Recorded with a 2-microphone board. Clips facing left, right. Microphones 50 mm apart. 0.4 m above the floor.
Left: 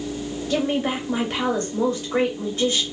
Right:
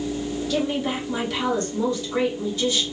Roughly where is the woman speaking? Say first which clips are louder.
Left 3 dB; left.